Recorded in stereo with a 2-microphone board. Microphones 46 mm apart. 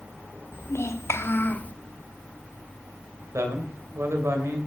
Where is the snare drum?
No snare drum in this recording.